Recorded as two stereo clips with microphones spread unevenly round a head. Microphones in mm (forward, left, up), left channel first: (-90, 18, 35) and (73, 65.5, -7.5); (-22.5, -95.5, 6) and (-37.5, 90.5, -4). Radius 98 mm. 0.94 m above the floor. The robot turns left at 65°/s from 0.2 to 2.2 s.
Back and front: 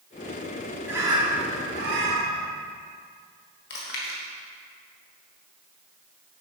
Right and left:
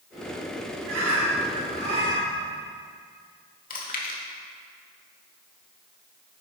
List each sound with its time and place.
0.9 s a bird: 105° left, 2 m; by 2.4 s 15° left, 2 m
3.7 s chewing: 125° right, 1.5 m